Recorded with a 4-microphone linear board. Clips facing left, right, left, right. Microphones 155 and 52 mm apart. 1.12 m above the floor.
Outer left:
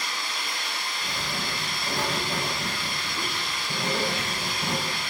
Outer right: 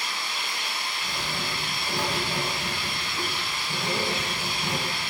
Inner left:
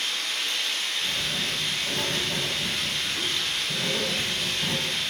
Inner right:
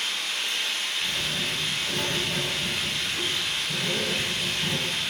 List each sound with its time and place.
0.0 s running water: 10° right (ahead or behind), 4.5 m
1.0 s writing: 20° left (ahead or behind), 5 m